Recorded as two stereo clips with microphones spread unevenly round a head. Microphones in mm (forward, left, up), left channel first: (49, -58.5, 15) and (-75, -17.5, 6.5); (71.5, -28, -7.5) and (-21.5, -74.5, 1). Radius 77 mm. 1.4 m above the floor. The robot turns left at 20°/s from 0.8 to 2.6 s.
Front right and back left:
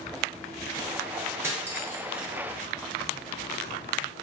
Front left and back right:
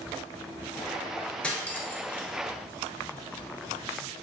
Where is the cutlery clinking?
105° left, 0.5 m; by 2.3 s 85° left, 0.5 m.